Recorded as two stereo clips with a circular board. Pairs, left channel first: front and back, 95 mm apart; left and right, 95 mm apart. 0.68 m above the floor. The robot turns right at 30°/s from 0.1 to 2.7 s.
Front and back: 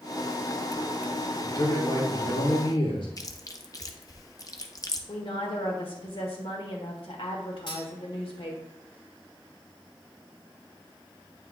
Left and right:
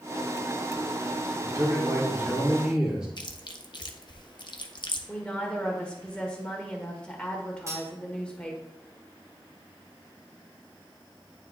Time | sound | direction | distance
1.4 | a man speaking | 45° right | 2 m
3.2 | chewing | 50° left | 0.7 m
5.1 | a woman speaking | 10° left | 1.8 m
7.7 | cutlery clinking | 35° right | 1.8 m